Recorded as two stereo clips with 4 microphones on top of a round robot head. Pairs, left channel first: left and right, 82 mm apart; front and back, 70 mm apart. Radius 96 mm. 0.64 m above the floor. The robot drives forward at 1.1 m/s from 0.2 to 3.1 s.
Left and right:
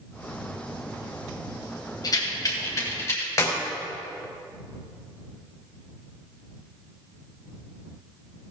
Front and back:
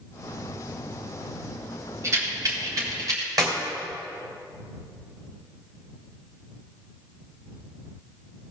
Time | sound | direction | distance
2.0 | a rattle | 130° left | 2.5 m
3.4 | a clap | 145° left | 3 m